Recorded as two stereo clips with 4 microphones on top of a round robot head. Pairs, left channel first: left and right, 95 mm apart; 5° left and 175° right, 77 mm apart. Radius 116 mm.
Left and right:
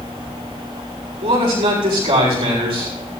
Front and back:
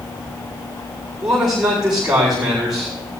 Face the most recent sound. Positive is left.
turn(degrees=-95)